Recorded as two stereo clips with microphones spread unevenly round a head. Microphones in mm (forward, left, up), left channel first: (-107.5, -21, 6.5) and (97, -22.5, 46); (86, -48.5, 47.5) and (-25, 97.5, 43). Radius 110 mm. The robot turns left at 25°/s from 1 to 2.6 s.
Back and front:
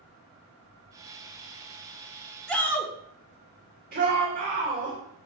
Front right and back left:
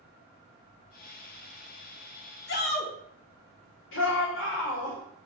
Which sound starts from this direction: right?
A shout, at 2.5 s.